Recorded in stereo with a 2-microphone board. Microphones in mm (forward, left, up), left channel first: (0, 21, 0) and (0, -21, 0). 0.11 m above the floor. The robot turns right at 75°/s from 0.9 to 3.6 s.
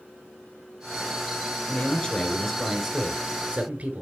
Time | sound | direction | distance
1.7 | a man speaking | 115° left | 1.5 m